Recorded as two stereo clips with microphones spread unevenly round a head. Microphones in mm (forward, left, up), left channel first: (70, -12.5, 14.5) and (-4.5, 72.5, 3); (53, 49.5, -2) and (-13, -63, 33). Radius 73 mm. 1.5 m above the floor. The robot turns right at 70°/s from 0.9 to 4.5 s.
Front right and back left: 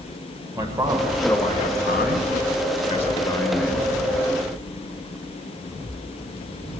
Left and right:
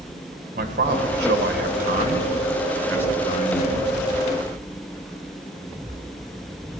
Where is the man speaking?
160° right, 1.8 m; by 3.9 s 50° left, 1.8 m.